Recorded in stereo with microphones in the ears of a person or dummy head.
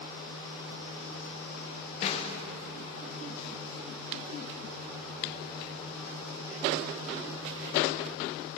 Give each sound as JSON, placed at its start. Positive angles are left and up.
{"t": 2.0, "sound": "a snare drum", "side_deg": 35, "distance_m": 0.6}